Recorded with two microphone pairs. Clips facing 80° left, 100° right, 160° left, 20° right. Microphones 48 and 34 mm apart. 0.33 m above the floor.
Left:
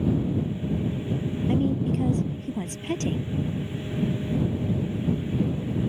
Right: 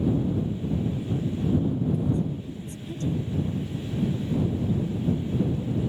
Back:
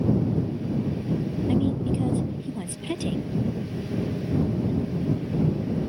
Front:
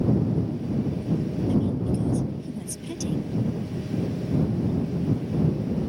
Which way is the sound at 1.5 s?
105° left.